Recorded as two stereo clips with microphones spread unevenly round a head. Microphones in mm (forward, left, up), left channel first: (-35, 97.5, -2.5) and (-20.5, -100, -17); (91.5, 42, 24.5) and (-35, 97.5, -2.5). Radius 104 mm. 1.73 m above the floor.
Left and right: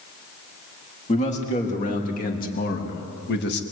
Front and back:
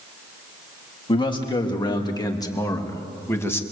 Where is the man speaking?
35° left, 3.5 m; by 3.6 s 50° left, 2.5 m.